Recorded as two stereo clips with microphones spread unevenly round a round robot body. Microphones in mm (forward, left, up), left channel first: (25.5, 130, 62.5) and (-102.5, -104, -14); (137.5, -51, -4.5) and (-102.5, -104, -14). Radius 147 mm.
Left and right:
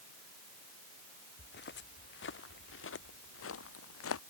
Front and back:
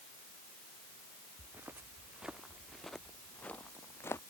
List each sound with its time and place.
1.4 s footsteps: 110° left; by 4.2 s 95° left